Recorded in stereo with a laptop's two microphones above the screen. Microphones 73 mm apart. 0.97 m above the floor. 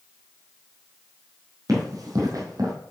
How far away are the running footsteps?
About 2.5 m.